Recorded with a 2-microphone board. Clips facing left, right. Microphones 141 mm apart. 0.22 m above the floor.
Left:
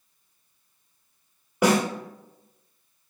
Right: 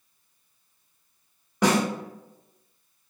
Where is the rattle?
No rattle in this recording.